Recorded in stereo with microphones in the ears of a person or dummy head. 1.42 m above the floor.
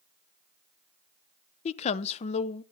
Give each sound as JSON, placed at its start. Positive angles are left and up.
{"t": 1.6, "sound": "a woman speaking", "side_deg": 40, "distance_m": 0.7}